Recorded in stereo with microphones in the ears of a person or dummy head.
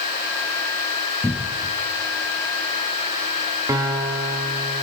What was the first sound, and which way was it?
A cupboard door, centre (ahead or behind).